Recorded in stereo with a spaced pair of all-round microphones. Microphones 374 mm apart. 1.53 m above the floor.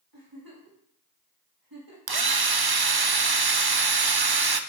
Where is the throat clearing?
I don't hear throat clearing.